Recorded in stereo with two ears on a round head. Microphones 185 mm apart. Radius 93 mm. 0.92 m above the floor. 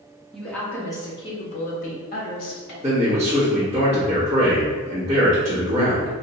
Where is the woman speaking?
Centre (ahead or behind), 1.4 m; by 2.7 s 55° left (ahead or behind), 1.8 m.